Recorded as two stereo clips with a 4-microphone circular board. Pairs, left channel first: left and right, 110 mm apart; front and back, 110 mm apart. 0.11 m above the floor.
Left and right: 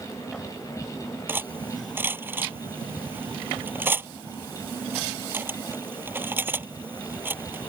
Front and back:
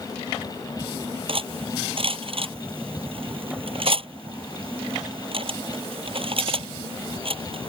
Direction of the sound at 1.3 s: 160° right.